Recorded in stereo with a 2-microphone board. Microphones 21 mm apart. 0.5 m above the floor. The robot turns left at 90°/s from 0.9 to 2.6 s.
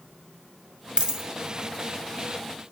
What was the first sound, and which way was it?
A dropped coin, 50° right (ahead or behind).